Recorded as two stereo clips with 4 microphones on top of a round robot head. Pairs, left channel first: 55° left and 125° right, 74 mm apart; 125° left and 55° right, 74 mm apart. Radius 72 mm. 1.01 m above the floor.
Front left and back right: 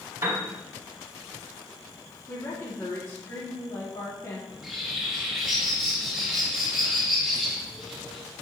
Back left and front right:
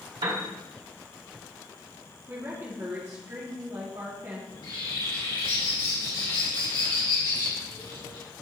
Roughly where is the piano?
Ahead right.